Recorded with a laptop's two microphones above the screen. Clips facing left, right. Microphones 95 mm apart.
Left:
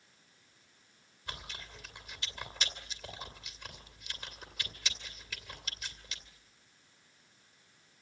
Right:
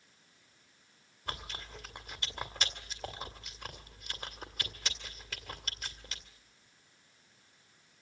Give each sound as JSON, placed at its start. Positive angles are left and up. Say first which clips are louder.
{"t": 1.3, "sound": "chewing", "louder": "right 4 dB", "side_deg": -45, "distance_m": 2.0}